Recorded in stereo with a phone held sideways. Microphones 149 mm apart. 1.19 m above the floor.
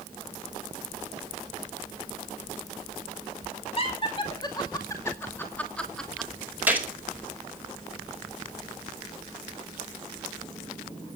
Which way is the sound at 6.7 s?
10° right (ahead or behind).